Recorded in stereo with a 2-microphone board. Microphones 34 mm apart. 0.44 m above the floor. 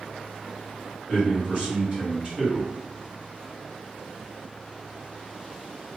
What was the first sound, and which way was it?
A man speaking, 40° right (ahead or behind).